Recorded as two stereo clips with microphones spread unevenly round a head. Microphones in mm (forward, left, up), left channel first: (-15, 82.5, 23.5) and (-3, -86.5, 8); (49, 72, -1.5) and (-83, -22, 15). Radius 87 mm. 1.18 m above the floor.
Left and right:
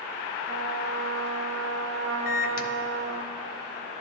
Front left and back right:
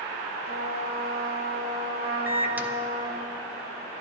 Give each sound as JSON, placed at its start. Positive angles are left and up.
{"t": 0.5, "sound": "a trumpet", "azimuth_deg": -105, "distance_m": 0.8}
{"t": 2.3, "sound": "a microwave", "azimuth_deg": 135, "distance_m": 0.5}